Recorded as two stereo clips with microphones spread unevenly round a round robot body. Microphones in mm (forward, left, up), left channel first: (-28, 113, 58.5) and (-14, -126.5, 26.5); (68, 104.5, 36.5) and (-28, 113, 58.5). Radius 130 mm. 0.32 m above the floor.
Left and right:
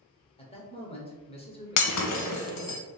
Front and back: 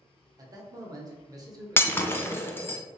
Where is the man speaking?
150° left, 0.9 m.